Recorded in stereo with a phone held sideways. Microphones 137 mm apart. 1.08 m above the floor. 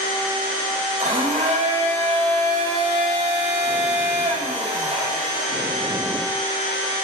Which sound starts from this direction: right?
A blender, at 1.0 s.